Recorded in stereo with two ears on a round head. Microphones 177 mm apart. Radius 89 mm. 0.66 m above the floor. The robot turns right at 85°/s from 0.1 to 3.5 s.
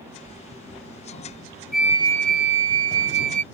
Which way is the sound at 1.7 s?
Straight behind.